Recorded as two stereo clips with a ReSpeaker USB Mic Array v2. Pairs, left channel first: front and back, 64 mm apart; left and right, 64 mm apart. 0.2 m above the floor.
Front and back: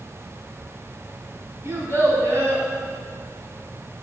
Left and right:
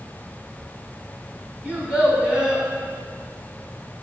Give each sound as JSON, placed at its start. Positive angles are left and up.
{"t": 1.6, "sound": "a child speaking", "azimuth_deg": -165, "distance_m": 0.9}